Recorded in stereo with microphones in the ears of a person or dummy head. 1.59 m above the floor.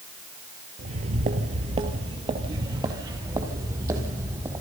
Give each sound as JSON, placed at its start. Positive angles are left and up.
{"t": 0.8, "sound": "footsteps", "side_deg": -40, "distance_m": 2.5}